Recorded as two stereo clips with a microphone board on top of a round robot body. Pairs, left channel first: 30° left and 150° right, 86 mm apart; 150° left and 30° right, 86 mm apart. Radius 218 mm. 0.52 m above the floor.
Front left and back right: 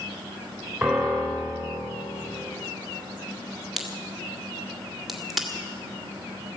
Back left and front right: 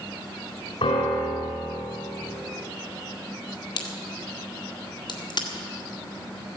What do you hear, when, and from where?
0.8 s a piano: 125° left, 3 m
3.8 s a crack: 120° left, 1.9 m